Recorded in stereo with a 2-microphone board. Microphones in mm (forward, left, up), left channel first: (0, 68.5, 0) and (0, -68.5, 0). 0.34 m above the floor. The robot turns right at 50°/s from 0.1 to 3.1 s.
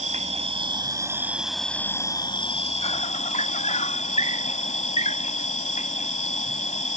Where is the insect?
70° right; by 7.0 s 80° left.